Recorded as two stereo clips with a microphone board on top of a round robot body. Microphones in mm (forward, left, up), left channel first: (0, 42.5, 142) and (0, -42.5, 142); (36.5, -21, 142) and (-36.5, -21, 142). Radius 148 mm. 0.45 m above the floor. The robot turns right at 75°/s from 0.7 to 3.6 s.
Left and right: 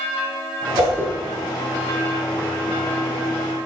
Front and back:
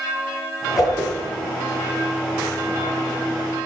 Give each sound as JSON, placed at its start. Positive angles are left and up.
{"t": 0.8, "sound": "a whoosh", "azimuth_deg": -45, "distance_m": 9.5}